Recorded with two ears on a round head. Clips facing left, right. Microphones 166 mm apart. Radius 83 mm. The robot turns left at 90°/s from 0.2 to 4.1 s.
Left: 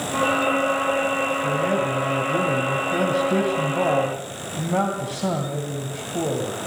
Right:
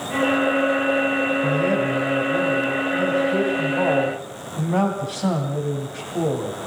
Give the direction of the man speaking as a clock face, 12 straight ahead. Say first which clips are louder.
Right 1 dB; 4 o'clock.